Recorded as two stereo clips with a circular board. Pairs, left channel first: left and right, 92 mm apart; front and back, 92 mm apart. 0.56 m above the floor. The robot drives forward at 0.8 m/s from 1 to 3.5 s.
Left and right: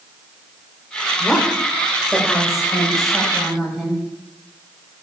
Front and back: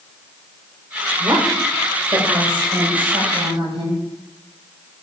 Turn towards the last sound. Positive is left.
turn(degrees=180)